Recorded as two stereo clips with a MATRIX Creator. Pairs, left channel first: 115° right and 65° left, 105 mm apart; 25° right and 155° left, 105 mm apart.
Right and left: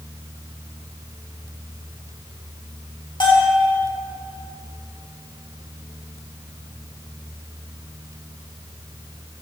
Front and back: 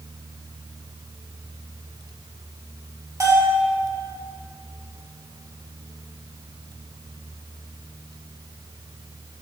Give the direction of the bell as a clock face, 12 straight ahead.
5 o'clock.